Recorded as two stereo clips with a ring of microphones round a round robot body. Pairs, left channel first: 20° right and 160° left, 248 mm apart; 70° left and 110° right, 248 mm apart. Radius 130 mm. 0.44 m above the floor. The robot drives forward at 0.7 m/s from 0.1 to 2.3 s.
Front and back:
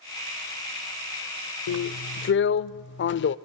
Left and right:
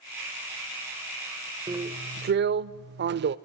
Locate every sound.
1.7 s a drill: 35° right, 0.8 m; by 3.4 s 65° right, 0.6 m